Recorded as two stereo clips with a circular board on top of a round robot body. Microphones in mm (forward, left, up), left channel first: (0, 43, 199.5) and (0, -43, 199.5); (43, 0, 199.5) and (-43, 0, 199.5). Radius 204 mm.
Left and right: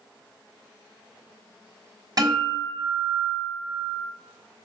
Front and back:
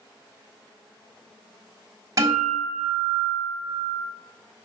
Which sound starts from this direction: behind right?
A guitar, at 2.2 s.